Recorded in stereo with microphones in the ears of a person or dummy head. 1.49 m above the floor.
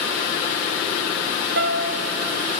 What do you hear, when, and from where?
1.6 s a piano: 70° right (ahead or behind), 1.0 m